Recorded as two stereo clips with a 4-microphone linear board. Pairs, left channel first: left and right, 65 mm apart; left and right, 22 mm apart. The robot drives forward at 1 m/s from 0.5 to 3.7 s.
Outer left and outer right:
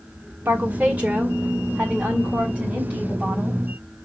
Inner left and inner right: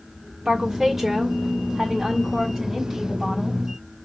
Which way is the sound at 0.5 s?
30° right (ahead or behind).